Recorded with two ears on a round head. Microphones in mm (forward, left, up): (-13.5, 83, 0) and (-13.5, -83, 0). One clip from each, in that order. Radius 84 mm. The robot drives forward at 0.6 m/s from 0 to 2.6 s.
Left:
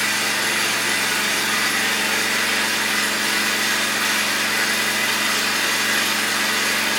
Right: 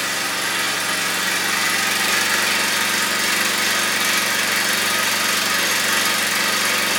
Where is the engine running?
20° right (ahead or behind), 1.4 m; by 7.0 s 65° right (ahead or behind), 0.6 m.